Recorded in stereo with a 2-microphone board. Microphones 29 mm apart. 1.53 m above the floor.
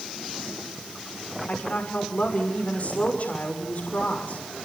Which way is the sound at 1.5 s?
55° left (ahead or behind).